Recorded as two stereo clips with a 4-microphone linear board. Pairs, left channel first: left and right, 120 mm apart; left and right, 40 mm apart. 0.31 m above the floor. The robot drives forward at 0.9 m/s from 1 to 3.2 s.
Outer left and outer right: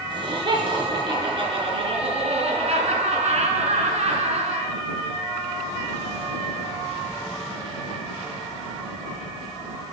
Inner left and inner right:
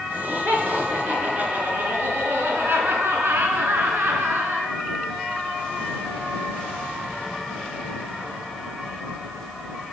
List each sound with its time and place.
0.1 s laughter: 40° right (ahead or behind), 3.5 m; by 4.7 s 65° right (ahead or behind), 2.5 m